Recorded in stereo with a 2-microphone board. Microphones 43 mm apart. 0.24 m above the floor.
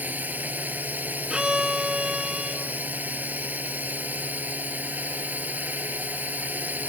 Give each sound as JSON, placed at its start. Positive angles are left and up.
{"t": 0.0, "sound": "a drone", "side_deg": -45}
{"t": 1.3, "sound": "a violin", "side_deg": -20}